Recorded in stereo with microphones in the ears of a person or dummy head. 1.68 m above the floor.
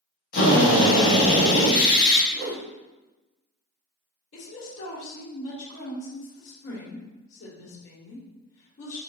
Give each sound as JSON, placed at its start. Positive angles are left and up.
{"t": 0.3, "sound": "a drill", "side_deg": 45, "distance_m": 1.4}
{"t": 2.3, "sound": "a whoosh", "side_deg": -60, "distance_m": 1.2}
{"t": 4.3, "sound": "a woman speaking", "side_deg": 80, "distance_m": 2.0}